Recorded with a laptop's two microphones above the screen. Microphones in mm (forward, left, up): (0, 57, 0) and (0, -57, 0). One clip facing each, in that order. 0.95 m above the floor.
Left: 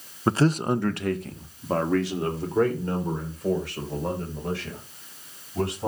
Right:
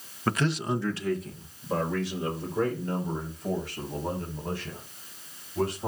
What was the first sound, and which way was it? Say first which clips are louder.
A man speaking: left 6 dB; 20° left (ahead or behind).